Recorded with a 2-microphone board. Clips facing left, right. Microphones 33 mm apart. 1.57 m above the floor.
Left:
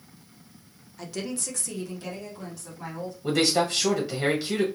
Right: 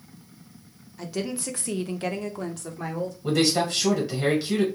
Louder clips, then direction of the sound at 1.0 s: Right 3 dB; centre (ahead or behind).